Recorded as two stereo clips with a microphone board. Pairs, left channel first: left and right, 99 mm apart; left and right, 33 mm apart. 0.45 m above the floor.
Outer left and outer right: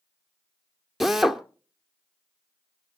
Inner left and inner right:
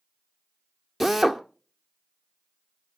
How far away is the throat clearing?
I don't hear throat clearing.